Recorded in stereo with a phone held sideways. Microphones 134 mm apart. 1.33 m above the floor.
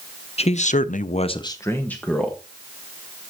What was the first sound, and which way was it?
A man speaking, 50° left (ahead or behind).